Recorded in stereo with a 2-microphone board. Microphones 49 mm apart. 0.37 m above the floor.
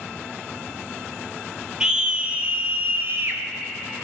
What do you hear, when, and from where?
1.8 s a scream: 15° right (ahead or behind), 0.9 m; by 3.4 s 50° right (ahead or behind), 1.4 m